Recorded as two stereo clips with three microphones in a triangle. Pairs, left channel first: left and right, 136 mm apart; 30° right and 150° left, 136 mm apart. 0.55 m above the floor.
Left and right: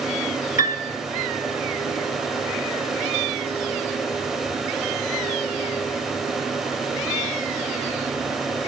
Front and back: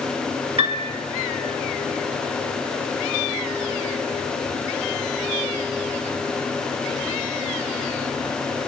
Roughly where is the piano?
Left.